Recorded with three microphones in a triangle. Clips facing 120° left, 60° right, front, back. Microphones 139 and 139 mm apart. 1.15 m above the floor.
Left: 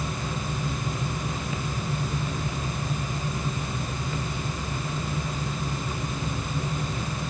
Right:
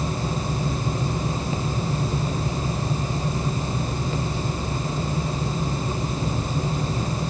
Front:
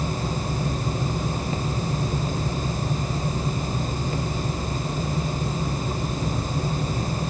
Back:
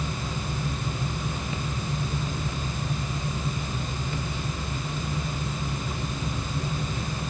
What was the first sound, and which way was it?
Only background noise.